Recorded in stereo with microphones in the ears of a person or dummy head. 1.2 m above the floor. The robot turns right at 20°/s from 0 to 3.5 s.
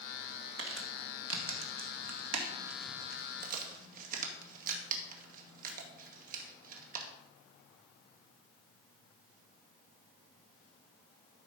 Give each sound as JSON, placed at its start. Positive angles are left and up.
{"t": 0.6, "sound": "crumpling", "side_deg": -65, "distance_m": 2.0}